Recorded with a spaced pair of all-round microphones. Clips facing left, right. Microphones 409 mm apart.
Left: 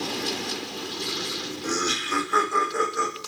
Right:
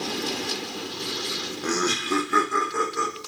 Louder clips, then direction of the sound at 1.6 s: Right 4 dB; 75° right (ahead or behind).